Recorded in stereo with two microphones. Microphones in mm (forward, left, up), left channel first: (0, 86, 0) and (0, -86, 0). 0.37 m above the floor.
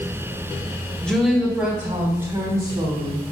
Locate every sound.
1.0 s a woman speaking: 5° left (ahead or behind), 1.4 m; by 3.3 s 45° right (ahead or behind), 2.5 m